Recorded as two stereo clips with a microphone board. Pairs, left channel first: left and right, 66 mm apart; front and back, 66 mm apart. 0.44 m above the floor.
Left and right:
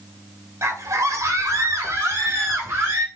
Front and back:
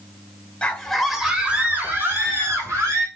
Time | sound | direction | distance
0.6 | a scream | 70° right | 1.6 m